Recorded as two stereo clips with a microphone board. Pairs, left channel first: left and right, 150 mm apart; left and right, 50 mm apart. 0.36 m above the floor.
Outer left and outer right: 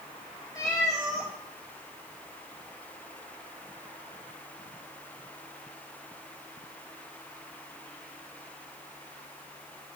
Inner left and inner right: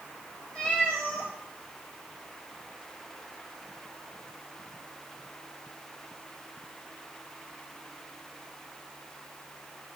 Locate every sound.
0.6 s a cat meowing: 20° left (ahead or behind), 2.5 m